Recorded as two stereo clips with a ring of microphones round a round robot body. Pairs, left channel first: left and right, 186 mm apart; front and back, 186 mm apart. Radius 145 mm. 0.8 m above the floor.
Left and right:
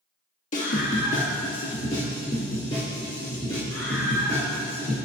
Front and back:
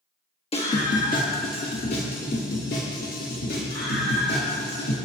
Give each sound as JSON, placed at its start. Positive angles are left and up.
{"t": 0.5, "sound": "a scream", "azimuth_deg": 50, "distance_m": 1.4}